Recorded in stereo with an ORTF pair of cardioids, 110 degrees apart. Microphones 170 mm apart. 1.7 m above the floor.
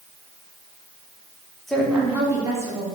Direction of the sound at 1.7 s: 5° left.